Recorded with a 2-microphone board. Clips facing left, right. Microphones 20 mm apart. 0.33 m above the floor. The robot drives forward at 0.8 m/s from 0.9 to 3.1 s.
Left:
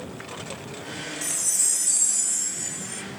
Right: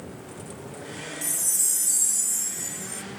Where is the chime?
25° left (ahead or behind); by 3.0 s 10° left (ahead or behind).